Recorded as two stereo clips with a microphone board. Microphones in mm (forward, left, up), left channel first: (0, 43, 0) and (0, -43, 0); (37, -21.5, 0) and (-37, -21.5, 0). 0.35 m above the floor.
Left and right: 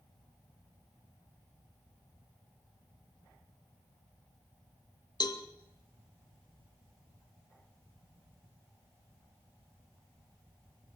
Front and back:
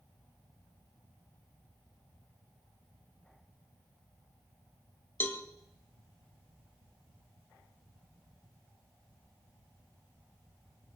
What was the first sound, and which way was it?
A cowbell, 60° left.